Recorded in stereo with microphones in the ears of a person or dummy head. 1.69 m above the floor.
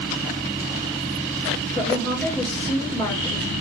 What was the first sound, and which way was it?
A woman speaking, 10° left (ahead or behind).